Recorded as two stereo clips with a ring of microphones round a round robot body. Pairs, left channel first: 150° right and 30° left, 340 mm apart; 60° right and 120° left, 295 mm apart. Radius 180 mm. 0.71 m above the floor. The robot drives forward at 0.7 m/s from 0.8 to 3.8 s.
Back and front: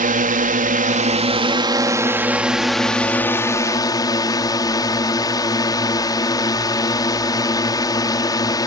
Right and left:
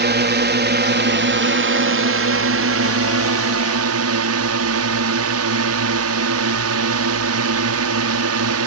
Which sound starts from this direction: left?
A drone, at 0.0 s.